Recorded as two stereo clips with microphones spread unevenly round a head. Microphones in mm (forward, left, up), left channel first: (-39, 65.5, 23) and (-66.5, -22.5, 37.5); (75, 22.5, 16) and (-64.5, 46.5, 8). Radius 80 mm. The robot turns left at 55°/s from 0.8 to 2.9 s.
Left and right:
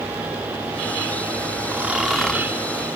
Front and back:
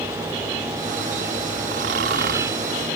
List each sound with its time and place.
1.7 s snoring: 170° right; by 2.5 s 145° left